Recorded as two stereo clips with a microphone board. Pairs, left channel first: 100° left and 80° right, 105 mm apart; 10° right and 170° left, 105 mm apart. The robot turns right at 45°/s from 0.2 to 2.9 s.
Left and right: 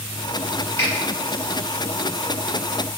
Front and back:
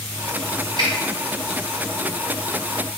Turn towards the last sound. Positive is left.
turn(degrees=-115)